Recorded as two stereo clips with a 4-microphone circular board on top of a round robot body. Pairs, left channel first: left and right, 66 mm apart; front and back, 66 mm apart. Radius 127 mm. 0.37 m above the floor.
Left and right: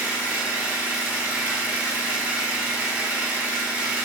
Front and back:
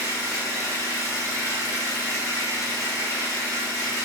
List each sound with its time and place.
0.0 s an engine running: 25° right, 1.1 m